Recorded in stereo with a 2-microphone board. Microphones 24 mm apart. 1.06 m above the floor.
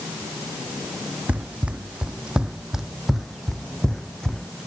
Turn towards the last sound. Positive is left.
turn(degrees=30)  # may be behind; listen again after turning